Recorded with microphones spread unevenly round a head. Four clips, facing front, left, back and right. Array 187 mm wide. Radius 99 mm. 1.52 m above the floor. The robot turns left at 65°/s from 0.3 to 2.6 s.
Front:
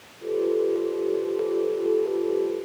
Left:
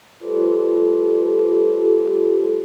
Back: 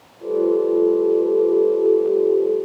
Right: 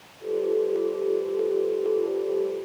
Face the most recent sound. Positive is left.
No sound to turn to.